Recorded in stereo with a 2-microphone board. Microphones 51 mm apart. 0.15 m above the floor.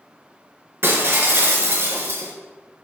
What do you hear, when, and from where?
0.8 s breaking glass: 45° right (ahead or behind), 1.0 m